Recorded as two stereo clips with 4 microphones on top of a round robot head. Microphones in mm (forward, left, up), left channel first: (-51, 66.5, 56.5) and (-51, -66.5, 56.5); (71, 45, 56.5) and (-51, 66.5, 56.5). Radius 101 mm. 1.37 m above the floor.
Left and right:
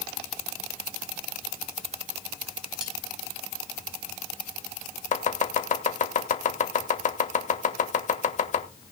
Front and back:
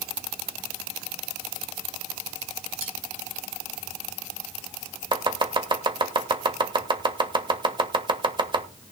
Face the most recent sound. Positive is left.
turn(degrees=120)